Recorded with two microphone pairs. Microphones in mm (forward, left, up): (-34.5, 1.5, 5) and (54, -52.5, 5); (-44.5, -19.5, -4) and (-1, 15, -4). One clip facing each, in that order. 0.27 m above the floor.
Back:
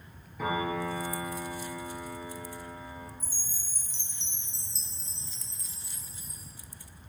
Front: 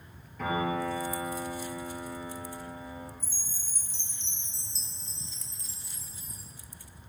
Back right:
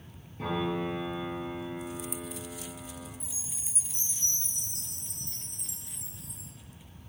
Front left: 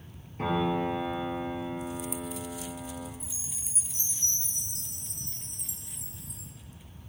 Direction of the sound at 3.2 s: 125° left.